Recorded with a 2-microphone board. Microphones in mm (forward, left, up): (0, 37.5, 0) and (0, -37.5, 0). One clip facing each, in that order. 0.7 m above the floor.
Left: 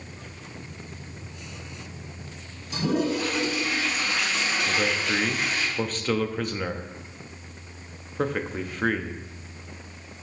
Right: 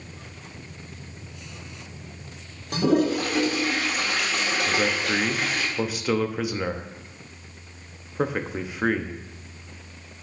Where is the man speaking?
10° right (ahead or behind), 0.5 m.